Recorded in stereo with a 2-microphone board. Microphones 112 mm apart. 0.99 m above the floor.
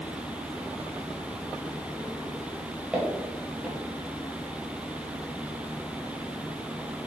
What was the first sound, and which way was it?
Footsteps, 5° right (ahead or behind).